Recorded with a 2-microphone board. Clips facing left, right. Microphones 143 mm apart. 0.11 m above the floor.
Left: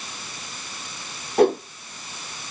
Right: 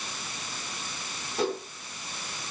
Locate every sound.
1.4 s a whoosh: 60° left (ahead or behind), 0.9 m